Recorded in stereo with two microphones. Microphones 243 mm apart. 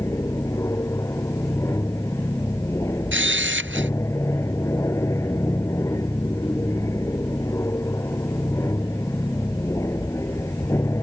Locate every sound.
0.0 s an aircraft: 10° left (ahead or behind)
3.1 s a camera shutter: 55° right (ahead or behind)